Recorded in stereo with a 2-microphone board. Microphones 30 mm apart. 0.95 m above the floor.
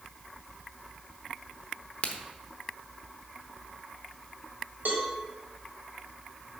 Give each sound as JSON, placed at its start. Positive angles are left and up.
{"t": 2.0, "sound": "a crack", "side_deg": 40, "distance_m": 0.9}
{"t": 4.8, "sound": "a cowbell", "side_deg": -70, "distance_m": 1.9}